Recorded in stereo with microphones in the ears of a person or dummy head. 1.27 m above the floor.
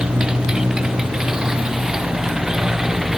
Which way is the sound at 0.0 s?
5° right (ahead or behind).